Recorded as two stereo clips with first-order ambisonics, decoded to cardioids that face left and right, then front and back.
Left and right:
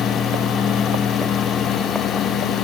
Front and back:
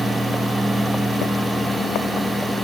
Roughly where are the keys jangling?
No keys jangling in this recording.